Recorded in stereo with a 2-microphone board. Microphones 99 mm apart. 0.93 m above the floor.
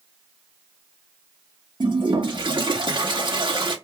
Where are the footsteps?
I don't hear footsteps.